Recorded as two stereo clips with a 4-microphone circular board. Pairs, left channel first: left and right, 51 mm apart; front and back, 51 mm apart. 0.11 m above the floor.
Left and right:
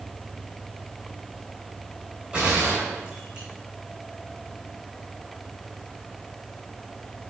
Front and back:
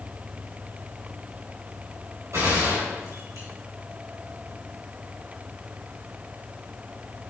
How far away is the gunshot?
About 5 m.